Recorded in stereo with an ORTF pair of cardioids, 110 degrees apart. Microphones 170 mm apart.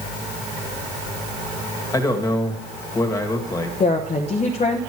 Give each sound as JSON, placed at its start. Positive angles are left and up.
{"t": 1.9, "sound": "a man speaking", "azimuth_deg": 20, "distance_m": 2.5}
{"t": 3.8, "sound": "a woman speaking", "azimuth_deg": 45, "distance_m": 1.1}